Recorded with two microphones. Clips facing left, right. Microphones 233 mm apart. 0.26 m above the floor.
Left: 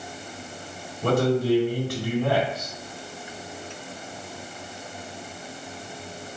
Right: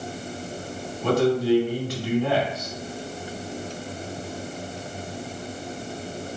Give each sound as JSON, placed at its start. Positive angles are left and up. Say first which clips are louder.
{"t": 1.0, "sound": "a man speaking", "louder": "right 1 dB", "side_deg": 55, "distance_m": 1.8}